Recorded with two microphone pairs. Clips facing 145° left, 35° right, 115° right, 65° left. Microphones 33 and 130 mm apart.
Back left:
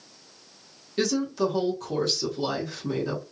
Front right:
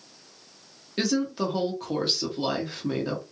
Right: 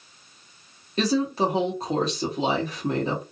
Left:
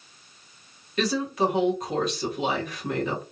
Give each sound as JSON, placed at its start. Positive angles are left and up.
{"t": 1.0, "sound": "a woman speaking", "azimuth_deg": -80, "distance_m": 1.3}